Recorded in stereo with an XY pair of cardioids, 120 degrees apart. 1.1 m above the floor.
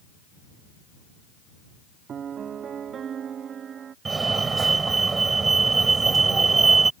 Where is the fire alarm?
25° right.